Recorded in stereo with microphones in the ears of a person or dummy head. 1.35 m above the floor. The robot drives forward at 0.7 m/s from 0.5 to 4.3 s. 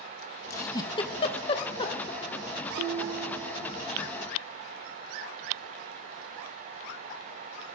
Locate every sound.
0.5 s a giggle: 15° left (ahead or behind), 0.8 m
2.8 s dishes clattering: 50° right (ahead or behind), 0.5 m; by 3.8 s 30° right (ahead or behind), 0.8 m